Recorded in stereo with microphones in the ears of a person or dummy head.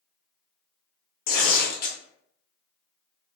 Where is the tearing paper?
45° left (ahead or behind), 0.7 m.